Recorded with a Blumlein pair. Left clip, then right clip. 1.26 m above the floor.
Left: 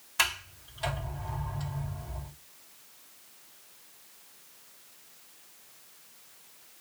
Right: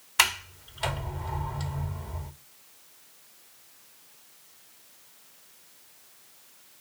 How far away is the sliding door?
About 1.6 m.